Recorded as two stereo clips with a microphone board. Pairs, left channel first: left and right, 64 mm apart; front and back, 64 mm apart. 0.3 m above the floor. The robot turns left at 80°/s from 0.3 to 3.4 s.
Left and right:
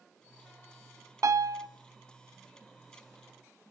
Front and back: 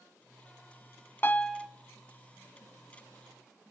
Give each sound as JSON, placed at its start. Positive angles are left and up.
{"t": 1.2, "sound": "a piano", "azimuth_deg": -55, "distance_m": 0.7}